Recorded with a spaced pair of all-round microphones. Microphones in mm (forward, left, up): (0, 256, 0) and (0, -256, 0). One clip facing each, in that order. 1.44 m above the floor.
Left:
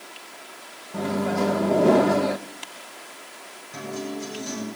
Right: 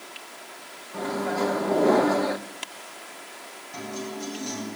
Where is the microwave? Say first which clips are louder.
Left 3 dB; 50° left (ahead or behind), 0.8 m.